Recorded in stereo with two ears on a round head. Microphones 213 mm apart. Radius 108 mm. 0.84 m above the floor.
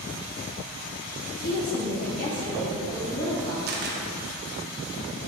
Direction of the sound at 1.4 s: 45° left (ahead or behind).